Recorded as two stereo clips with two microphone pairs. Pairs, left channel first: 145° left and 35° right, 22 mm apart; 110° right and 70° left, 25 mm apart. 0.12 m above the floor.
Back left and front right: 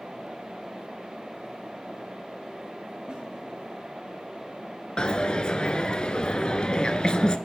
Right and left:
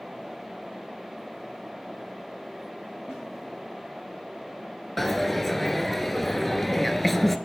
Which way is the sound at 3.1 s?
15° left.